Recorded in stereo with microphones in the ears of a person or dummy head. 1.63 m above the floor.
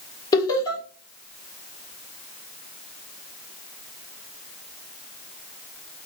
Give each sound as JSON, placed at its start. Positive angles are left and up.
{"t": 0.3, "sound": "laughter", "side_deg": 25, "distance_m": 1.7}